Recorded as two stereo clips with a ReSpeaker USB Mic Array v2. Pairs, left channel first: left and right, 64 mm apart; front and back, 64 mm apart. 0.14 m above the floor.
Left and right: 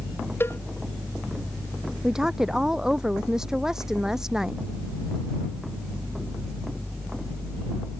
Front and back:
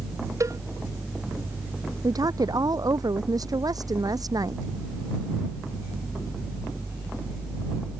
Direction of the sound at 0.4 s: 145° left.